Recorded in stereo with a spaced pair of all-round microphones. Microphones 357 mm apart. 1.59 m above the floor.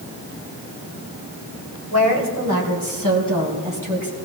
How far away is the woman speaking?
About 3 m.